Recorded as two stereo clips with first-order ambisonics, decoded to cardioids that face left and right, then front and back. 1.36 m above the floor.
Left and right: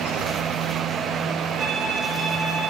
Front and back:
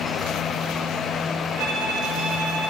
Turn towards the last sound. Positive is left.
turn(degrees=-160)